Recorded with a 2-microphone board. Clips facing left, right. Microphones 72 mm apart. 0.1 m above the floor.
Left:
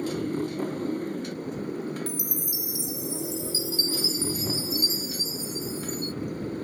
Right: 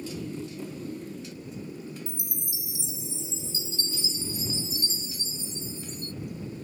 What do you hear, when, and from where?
0.0 s a motorcycle: 60° left (ahead or behind)
2.1 s a chime: 25° right (ahead or behind)